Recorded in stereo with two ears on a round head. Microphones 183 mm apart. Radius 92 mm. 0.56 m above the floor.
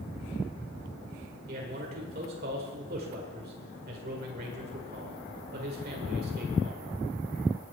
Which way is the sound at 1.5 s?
50° right (ahead or behind).